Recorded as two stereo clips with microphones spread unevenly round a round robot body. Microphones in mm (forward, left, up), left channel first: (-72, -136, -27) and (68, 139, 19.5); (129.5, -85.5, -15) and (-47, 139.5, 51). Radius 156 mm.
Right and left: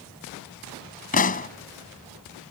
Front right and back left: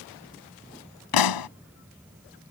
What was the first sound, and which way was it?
A pop, 50° right.